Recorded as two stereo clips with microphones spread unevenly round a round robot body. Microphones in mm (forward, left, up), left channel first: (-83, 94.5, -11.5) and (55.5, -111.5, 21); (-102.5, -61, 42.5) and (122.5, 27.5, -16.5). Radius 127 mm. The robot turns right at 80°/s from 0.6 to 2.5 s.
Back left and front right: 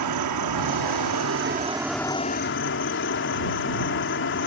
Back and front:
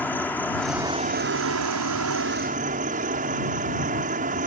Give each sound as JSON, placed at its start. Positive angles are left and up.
{"t": 0.0, "sound": "an insect", "azimuth_deg": -70}